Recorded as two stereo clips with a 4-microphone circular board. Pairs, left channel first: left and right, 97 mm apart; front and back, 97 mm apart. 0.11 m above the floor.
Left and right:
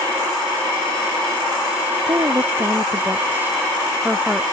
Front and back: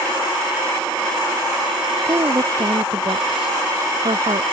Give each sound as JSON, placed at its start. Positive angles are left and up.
{"t": 2.1, "sound": "a woman speaking", "azimuth_deg": -135}